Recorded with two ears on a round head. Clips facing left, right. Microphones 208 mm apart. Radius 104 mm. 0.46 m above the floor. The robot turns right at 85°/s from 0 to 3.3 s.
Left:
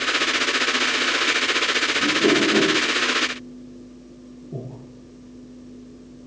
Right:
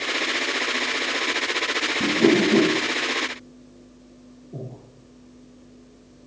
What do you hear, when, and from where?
2.0 s a whoosh: 75° right (ahead or behind), 1.7 m; by 2.7 s 25° right (ahead or behind), 1.7 m
4.5 s breathing: 75° left (ahead or behind), 2.5 m